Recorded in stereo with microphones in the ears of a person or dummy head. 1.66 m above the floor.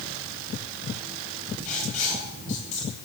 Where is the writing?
45° left (ahead or behind), 7 m.